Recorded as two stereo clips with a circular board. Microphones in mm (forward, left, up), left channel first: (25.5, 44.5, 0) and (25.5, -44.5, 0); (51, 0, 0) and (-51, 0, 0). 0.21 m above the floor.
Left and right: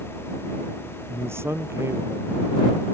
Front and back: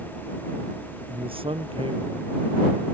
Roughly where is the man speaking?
Behind right.